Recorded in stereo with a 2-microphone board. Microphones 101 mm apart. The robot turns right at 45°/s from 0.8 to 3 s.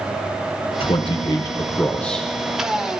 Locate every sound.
0.8 s a man speaking: 110° left, 1.0 m; by 2.3 s straight behind, 1.0 m